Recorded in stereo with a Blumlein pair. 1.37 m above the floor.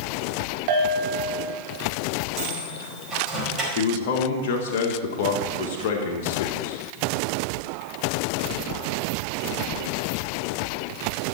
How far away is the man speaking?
About 1.7 m.